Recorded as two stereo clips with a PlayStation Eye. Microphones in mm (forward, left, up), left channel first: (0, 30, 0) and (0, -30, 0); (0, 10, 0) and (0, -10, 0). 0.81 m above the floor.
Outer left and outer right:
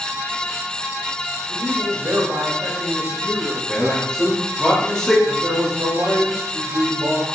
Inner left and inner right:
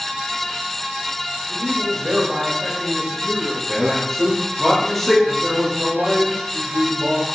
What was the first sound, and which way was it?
A man speaking, 50° right (ahead or behind).